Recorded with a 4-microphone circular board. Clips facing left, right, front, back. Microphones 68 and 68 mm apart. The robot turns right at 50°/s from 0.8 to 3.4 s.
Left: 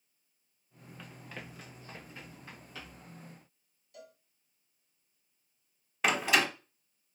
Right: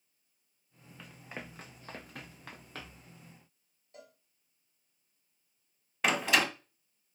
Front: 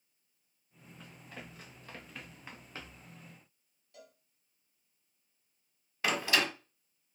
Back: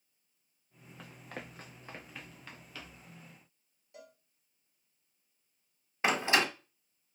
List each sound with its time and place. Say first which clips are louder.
1.0 s running footsteps: right 1 dB, back 4 dB; 175° left, 1.0 m; by 3.1 s 35° right, 1.8 m
3.9 s a cowbell: left 2 dB, back 2 dB; 125° right, 1.5 m
6.0 s a door slam: even, back 2 dB; 175° left, 0.9 m